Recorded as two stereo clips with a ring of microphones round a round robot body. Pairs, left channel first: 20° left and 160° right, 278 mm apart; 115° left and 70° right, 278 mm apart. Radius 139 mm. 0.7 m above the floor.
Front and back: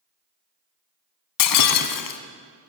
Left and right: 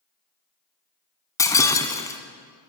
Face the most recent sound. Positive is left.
turn(degrees=35)